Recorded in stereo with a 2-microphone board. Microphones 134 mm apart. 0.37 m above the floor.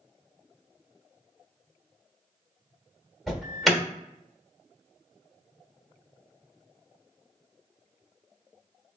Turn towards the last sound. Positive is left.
turn(degrees=0)  # may be behind; listen again after turning